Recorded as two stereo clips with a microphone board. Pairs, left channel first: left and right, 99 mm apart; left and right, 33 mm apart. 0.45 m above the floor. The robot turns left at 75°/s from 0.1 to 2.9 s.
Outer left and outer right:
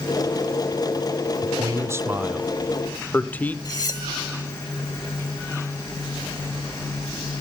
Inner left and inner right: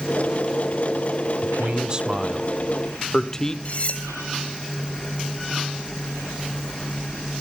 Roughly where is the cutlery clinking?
Left.